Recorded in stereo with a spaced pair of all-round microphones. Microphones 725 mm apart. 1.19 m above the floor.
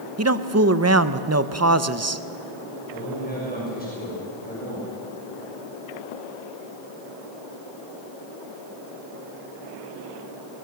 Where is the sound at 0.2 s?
25° right (ahead or behind), 0.7 m.